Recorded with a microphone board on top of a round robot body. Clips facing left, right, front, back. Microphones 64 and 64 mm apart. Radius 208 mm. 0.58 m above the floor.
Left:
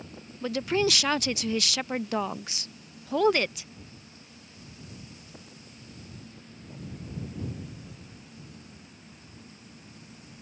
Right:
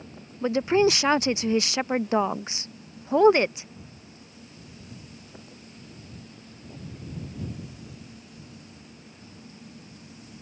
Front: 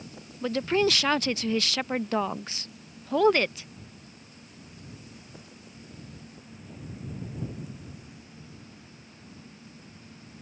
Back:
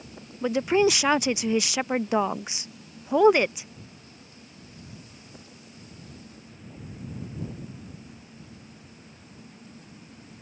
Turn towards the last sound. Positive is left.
turn(degrees=-120)